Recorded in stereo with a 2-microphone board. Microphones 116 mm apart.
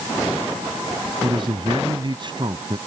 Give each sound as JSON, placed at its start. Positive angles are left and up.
{"t": 1.2, "sound": "a man speaking", "side_deg": -45}